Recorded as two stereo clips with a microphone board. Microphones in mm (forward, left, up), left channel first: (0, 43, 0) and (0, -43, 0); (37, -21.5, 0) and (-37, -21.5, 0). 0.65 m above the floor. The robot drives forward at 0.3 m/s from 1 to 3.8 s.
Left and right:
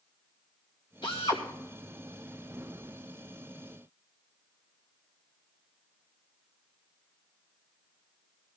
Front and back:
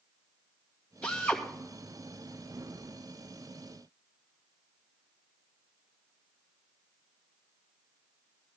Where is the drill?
75° left, 2.5 m.